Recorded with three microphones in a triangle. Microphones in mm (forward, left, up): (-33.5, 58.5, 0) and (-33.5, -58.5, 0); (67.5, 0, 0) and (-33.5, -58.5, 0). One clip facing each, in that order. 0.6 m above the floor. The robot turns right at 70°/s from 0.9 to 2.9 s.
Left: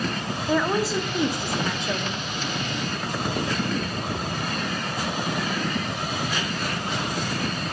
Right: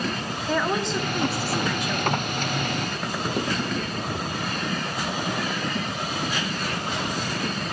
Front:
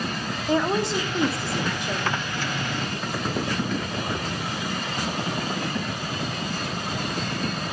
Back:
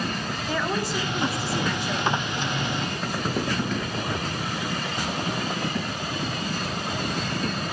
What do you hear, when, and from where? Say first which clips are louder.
0.5 s a woman speaking: left 2 dB, front 5 dB; 10° left, 0.6 m; by 2.3 s 105° left, 0.6 m